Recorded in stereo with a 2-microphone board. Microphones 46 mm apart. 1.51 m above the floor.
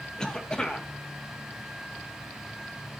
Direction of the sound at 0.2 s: 15° left (ahead or behind).